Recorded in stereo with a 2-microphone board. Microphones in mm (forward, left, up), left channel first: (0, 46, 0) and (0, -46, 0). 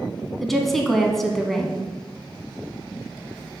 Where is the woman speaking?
Centre (ahead or behind), 1.0 m.